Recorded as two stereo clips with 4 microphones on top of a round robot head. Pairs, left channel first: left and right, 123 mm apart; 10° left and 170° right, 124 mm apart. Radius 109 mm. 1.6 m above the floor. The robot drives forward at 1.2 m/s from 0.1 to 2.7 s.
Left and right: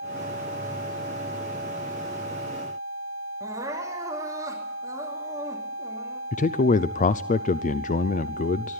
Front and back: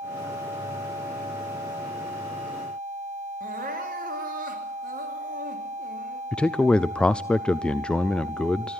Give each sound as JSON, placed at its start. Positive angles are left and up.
{"t": 3.4, "sound": "crying", "azimuth_deg": -160, "distance_m": 2.5}
{"t": 6.3, "sound": "a man speaking", "azimuth_deg": 90, "distance_m": 0.5}